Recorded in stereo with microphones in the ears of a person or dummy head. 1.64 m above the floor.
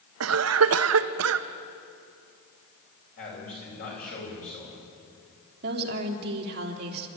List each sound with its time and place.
0.2 s a cough: 70° right (ahead or behind), 1.0 m
3.2 s a man speaking: 50° left (ahead or behind), 9 m
5.6 s a woman speaking: 55° right (ahead or behind), 3 m